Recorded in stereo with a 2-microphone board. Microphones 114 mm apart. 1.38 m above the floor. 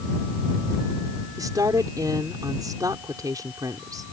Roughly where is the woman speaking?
Right.